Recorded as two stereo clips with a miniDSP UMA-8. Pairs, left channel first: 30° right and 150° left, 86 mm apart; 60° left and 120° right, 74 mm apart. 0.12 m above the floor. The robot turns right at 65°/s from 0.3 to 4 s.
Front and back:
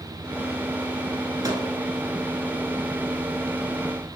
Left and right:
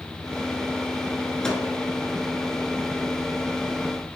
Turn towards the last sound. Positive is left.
turn(degrees=-55)